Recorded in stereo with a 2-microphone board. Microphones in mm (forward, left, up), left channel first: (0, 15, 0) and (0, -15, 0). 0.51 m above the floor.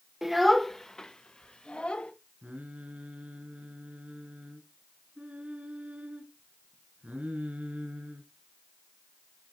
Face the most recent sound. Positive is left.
turn(degrees=-55)  # may be behind; listen again after turning